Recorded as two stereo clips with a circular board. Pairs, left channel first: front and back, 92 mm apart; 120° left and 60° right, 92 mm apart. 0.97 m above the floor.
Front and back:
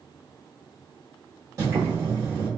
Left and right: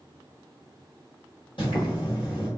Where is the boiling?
125° left, 1.4 m.